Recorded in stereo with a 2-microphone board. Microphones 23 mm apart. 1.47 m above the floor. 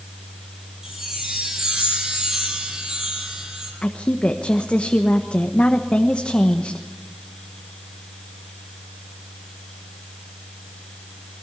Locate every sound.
0.8 s a chime: 25° right (ahead or behind), 6.5 m
3.8 s a woman speaking: 65° left (ahead or behind), 1.3 m